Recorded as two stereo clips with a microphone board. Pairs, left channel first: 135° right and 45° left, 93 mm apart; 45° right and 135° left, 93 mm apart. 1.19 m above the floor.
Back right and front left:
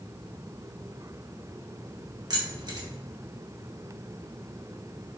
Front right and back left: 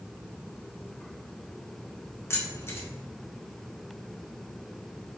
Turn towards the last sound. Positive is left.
turn(degrees=10)